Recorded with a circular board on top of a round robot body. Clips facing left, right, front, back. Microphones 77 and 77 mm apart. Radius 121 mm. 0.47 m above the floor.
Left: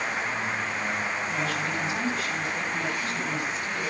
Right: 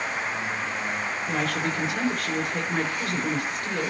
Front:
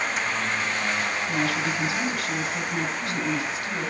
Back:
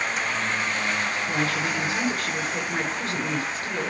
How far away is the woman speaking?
About 7 m.